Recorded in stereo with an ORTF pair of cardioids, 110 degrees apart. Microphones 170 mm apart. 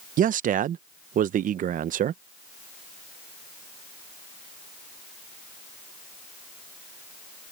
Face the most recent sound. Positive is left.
turn(degrees=-50)